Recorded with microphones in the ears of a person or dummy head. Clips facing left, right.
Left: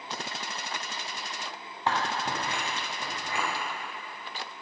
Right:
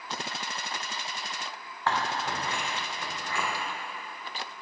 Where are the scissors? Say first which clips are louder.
Even; 15° left (ahead or behind), 0.8 m.